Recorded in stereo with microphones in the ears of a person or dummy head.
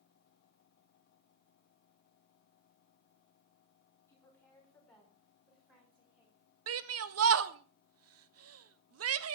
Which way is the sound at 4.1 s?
15° left (ahead or behind).